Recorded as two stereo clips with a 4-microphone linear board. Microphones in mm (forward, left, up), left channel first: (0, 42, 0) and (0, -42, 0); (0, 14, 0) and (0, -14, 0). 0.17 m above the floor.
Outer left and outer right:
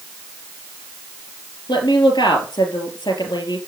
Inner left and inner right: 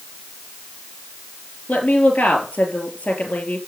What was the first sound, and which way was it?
A woman speaking, 60° left (ahead or behind).